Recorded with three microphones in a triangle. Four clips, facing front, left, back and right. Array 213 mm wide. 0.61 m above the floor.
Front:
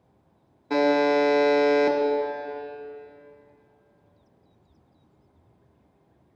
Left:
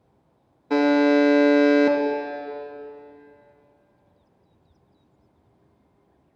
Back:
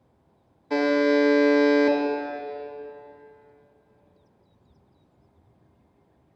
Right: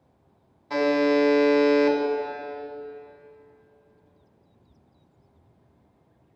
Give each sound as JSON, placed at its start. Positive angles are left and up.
{"t": 0.7, "sound": "a buzzer", "azimuth_deg": 60, "distance_m": 1.1}